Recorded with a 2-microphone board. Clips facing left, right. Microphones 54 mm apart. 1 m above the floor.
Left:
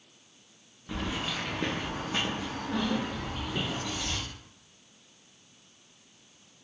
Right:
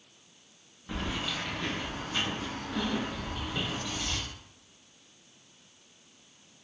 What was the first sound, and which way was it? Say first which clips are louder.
Keys jangling: left 1 dB; 5° right (ahead or behind).